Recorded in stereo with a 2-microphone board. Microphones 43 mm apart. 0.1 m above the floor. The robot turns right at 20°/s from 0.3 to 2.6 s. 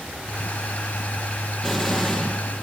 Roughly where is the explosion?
Centre.